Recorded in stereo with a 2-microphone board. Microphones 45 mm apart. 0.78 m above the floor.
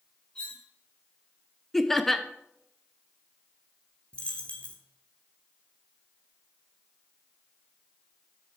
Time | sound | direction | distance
0.3 | cutlery clinking | 20° left (ahead or behind) | 4.5 m
1.7 | laughter | 5° left (ahead or behind) | 0.8 m
4.1 | a dropped coin | 25° left (ahead or behind) | 1.7 m